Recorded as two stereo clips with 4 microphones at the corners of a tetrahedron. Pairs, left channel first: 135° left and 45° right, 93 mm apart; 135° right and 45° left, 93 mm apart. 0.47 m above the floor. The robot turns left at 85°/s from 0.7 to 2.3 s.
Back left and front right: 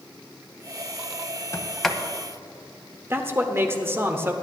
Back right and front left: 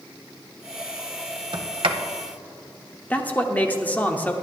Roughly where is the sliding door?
Left.